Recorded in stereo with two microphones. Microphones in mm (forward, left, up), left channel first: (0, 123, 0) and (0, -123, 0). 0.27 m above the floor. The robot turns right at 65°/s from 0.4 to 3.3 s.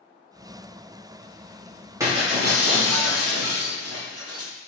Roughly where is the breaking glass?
Behind.